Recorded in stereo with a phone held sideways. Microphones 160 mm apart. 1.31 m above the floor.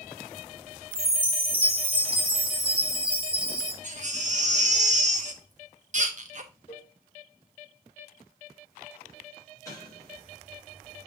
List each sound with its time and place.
0.9 s a chime: 75° right (ahead or behind), 2 m
3.8 s a baby crying: 50° right (ahead or behind), 0.9 m
6.7 s a cowbell: 40° left (ahead or behind), 4.5 m
9.7 s an explosion: 20° left (ahead or behind), 3 m